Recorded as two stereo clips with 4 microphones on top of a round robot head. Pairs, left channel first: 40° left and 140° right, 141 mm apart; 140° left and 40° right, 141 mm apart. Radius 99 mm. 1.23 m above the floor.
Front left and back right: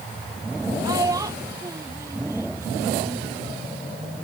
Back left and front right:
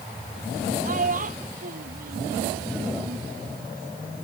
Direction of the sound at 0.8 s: 75° right.